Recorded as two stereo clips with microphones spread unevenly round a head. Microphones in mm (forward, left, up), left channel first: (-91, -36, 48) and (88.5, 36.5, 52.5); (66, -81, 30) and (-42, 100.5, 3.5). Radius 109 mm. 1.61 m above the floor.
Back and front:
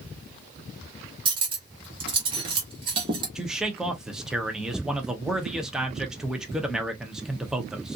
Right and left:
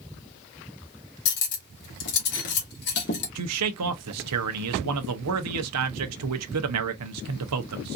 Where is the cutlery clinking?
40° right, 1.3 m.